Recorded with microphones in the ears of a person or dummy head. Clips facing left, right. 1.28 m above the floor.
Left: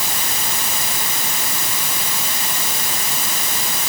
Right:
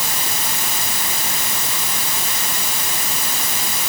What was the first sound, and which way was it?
Only background noise.